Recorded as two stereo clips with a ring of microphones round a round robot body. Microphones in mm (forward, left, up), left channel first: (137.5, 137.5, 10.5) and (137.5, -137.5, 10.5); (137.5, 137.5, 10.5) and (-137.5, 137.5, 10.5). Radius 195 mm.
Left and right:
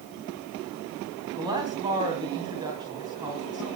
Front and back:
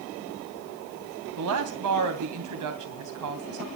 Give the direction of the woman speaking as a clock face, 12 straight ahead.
6 o'clock.